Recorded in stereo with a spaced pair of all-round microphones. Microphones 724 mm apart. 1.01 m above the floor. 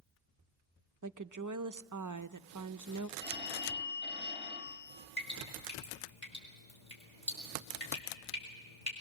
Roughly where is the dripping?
Left.